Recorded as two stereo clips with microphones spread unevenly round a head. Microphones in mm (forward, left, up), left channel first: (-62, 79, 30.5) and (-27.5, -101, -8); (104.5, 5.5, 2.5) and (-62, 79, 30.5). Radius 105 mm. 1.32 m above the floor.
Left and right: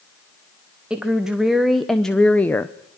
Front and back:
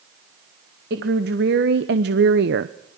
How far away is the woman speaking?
About 1.5 m.